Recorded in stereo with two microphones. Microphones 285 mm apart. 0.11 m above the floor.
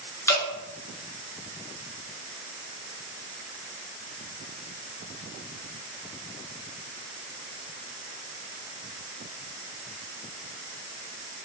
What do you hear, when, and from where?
0.3 s dripping: 10° left (ahead or behind), 1.0 m